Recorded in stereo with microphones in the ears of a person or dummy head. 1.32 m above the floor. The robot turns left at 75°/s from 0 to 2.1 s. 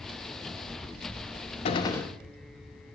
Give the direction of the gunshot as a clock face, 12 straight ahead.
11 o'clock.